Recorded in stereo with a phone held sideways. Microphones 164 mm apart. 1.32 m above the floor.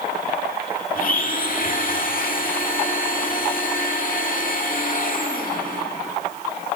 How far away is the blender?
About 2 m.